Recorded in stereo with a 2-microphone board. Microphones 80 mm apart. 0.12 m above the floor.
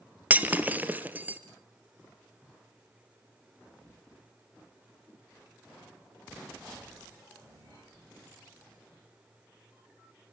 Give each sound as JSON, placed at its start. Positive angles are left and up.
{"t": 0.3, "sound": "breaking glass", "side_deg": -20, "distance_m": 1.6}